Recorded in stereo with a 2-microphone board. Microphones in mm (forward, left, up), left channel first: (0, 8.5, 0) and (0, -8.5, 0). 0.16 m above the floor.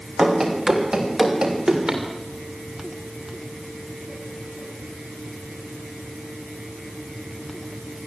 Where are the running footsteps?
40° right (ahead or behind), 5.5 m.